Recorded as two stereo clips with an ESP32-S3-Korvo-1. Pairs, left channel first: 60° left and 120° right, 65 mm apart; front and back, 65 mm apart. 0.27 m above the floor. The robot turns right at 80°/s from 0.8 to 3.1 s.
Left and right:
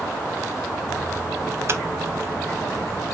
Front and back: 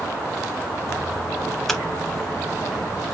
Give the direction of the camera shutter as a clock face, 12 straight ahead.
3 o'clock.